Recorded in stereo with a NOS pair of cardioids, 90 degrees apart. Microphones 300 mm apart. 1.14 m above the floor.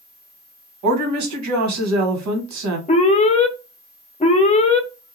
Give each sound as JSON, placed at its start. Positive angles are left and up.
{"t": 0.8, "sound": "a woman speaking", "azimuth_deg": -70, "distance_m": 1.1}
{"t": 2.9, "sound": "an alarm", "azimuth_deg": 25, "distance_m": 0.7}